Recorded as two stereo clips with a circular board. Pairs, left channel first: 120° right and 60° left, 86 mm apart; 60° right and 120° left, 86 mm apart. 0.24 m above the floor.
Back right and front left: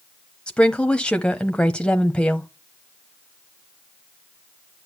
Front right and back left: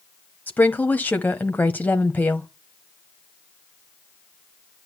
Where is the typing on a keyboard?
I don't hear typing on a keyboard.